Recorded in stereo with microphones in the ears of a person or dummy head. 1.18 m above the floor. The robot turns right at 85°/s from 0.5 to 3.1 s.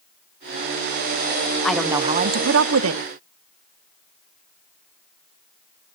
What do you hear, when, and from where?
1.6 s a woman speaking: 175° left, 0.6 m; by 3.0 s 65° right, 0.6 m